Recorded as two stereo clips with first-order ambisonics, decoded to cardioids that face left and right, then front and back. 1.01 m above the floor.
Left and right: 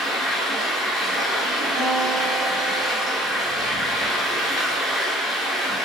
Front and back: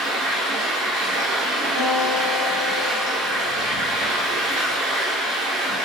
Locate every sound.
0.0 s running water: 175° left, 1.4 m
1.8 s a guitar: 175° left, 1.6 m